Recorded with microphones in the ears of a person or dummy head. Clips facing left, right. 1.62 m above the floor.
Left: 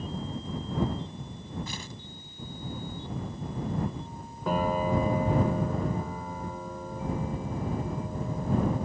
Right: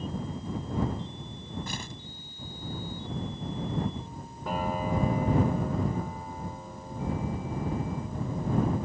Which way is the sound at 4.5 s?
75° left (ahead or behind).